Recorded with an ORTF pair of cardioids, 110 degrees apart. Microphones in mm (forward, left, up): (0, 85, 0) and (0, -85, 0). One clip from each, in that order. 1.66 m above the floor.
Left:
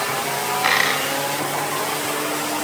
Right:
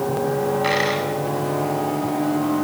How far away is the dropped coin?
About 7.5 m.